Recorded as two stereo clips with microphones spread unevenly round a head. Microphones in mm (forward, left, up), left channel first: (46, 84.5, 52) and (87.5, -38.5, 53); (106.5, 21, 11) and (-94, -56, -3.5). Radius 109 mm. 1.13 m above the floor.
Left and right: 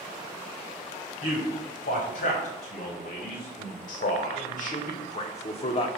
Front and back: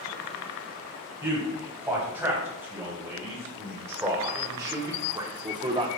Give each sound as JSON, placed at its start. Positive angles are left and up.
{"t": 1.2, "sound": "a man speaking", "azimuth_deg": 120, "distance_m": 3.5}